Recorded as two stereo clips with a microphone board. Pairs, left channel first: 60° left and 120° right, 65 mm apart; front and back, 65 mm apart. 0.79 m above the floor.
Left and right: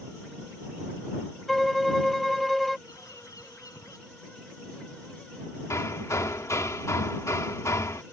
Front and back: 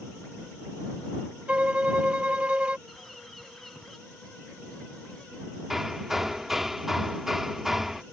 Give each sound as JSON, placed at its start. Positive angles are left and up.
{"t": 1.5, "sound": "a violin", "azimuth_deg": 145}
{"t": 2.9, "sound": "a bird", "azimuth_deg": 90}
{"t": 5.7, "sound": "hammering", "azimuth_deg": 95}